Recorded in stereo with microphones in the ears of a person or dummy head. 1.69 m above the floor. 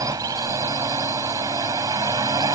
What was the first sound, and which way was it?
A drone, 15° right (ahead or behind).